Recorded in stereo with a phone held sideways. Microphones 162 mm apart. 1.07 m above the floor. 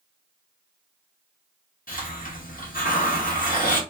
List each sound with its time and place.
1.9 s a hiss: 55° left (ahead or behind), 1.2 m